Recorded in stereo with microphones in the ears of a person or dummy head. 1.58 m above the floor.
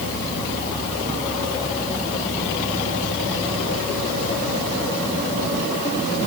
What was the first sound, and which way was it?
Only background noise.